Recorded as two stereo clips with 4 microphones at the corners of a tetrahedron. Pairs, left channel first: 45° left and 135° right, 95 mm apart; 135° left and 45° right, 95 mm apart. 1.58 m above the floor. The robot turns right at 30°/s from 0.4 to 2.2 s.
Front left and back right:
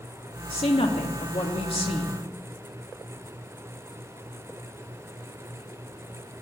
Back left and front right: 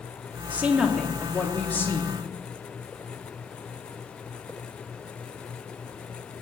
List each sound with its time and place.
0.5 s a woman speaking: 25° left, 2.5 m; by 2.1 s 75° left, 2.5 m